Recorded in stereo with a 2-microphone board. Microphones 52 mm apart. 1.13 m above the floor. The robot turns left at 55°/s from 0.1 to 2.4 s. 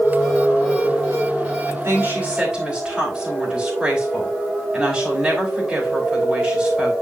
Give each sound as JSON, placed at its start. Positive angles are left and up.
{"t": 1.7, "sound": "a woman speaking", "azimuth_deg": -125, "distance_m": 4.0}